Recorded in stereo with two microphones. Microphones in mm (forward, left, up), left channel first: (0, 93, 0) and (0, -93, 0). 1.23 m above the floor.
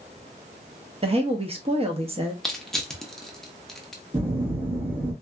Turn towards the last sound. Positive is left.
turn(degrees=-35)  # may be behind; listen again after turning